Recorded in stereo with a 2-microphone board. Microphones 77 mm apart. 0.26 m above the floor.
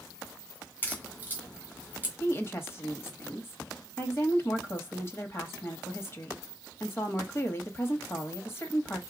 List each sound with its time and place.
0.8 s a crack: 25° left (ahead or behind), 2.5 m
2.2 s a woman speaking: 30° left (ahead or behind), 1.0 m